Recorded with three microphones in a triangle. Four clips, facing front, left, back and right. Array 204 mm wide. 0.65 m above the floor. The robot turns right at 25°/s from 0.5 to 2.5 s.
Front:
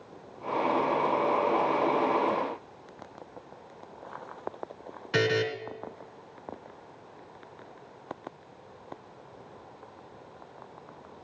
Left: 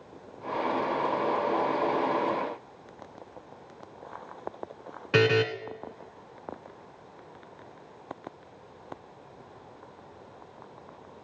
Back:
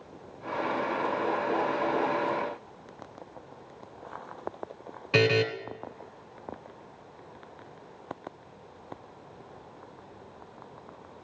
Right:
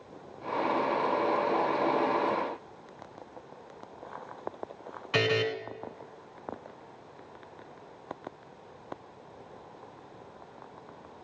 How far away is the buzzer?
About 1.8 m.